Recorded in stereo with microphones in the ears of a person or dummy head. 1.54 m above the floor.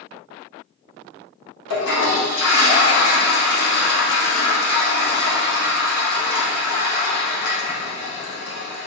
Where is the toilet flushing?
80° left, 0.8 m.